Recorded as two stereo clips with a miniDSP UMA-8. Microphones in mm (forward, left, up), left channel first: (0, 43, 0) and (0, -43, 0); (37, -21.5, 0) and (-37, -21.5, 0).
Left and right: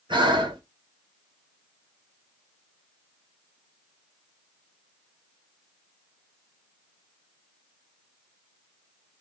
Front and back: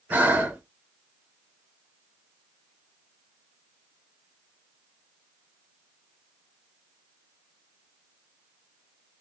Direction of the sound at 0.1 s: 110° right.